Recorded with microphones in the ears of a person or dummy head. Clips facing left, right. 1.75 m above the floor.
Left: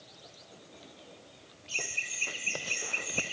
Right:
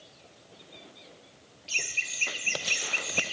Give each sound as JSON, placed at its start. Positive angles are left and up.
{"t": 1.7, "sound": "laughter", "side_deg": -30, "distance_m": 1.1}